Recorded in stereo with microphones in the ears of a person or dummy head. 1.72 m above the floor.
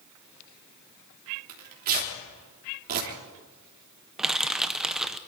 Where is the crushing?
Centre (ahead or behind), 0.6 m.